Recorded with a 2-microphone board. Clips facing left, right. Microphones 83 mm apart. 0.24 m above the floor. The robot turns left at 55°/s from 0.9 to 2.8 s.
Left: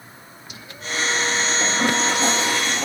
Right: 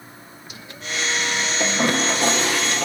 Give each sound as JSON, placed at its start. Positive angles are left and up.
{"t": 1.6, "sound": "a toilet flushing", "azimuth_deg": -30, "distance_m": 2.5}